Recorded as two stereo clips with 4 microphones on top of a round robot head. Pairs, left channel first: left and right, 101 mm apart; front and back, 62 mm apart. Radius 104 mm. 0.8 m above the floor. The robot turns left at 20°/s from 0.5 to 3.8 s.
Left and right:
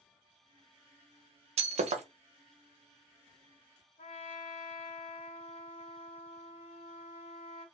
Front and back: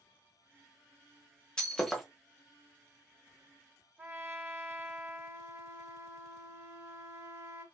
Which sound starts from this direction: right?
Breaking glass, at 1.6 s.